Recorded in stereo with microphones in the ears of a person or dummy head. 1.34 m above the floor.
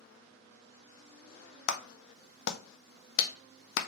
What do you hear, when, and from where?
1.7 s a clap: 65° left (ahead or behind), 0.6 m